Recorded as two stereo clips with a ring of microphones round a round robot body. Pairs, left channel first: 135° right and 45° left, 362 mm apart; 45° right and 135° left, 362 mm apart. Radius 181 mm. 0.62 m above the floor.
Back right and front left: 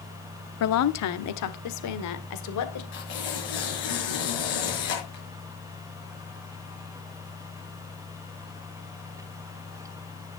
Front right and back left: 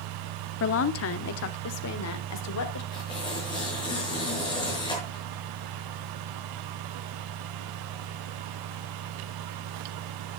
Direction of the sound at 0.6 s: 95° right.